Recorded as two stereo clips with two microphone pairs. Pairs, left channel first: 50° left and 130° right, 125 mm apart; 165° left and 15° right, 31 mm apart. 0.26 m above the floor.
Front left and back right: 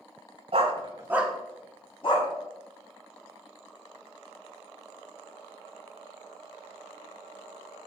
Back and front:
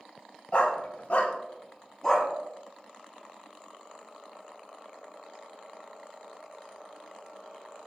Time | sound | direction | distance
0.5 | a dog barking | 150° right | 0.7 m